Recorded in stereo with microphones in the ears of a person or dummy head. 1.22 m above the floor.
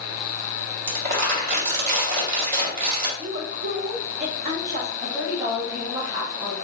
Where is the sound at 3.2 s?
45° right (ahead or behind), 0.6 m.